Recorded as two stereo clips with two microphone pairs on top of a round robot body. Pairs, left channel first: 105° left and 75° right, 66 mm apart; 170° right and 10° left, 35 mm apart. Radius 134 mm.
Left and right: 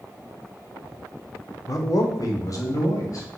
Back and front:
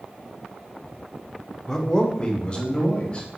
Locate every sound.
1.7 s a man speaking: 120° left, 0.8 m; by 3.3 s 140° left, 1.6 m